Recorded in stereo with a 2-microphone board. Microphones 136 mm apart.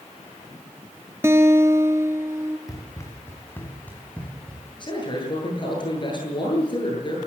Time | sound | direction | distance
1.2 | a guitar | 20° right (ahead or behind) | 1.1 m
2.7 | running footsteps | 25° left (ahead or behind) | 3.5 m
4.8 | a man speaking | 35° left (ahead or behind) | 9.5 m